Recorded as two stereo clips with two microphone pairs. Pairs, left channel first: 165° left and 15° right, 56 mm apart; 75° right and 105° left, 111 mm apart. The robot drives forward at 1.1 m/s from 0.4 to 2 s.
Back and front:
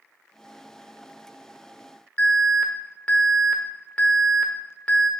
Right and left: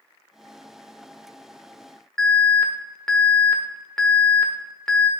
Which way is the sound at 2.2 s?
155° right.